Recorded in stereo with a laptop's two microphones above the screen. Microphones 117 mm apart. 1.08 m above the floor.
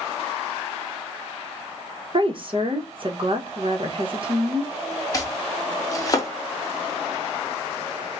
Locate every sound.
2.1 s a woman speaking: 45° right (ahead or behind), 1.1 m
5.1 s chopping: 30° left (ahead or behind), 0.7 m